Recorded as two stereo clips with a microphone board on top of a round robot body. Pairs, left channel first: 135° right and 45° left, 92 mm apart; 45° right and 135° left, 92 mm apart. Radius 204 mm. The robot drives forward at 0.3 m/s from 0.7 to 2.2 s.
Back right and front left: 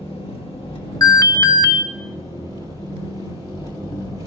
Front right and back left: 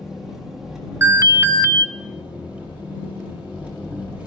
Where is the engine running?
140° right, 1.9 m; by 4.3 s 150° right, 2.5 m.